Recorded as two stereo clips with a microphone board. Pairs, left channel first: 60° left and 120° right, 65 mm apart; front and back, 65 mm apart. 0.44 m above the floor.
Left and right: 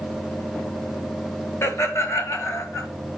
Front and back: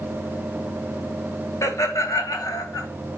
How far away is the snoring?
I don't hear snoring.